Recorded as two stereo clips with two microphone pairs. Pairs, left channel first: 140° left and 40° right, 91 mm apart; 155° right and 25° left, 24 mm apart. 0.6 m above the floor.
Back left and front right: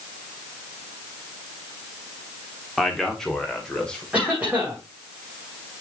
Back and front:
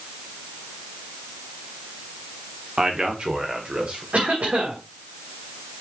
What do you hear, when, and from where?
2.8 s a man speaking: 55° left, 1.6 m; by 4.0 s 65° left, 3 m
4.1 s a cough: 35° left, 2.5 m